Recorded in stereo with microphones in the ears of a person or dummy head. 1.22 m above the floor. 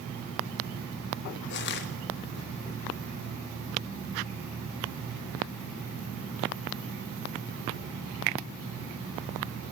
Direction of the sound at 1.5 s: 55° left (ahead or behind).